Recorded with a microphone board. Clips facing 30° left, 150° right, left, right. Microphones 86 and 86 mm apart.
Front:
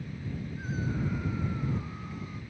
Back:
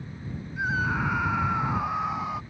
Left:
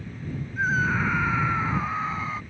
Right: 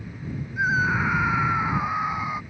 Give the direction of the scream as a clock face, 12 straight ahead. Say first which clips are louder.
Back 9 dB, right 2 dB; 6 o'clock.